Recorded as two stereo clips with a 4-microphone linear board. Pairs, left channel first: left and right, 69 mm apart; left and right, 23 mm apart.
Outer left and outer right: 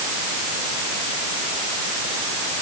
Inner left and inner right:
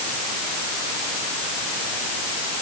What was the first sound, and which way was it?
Only background noise.